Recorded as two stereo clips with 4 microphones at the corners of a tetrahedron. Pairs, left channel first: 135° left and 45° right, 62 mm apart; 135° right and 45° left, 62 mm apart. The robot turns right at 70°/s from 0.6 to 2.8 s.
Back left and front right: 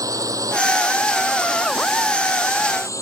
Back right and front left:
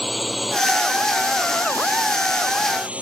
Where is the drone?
45° right; by 3.0 s 110° left.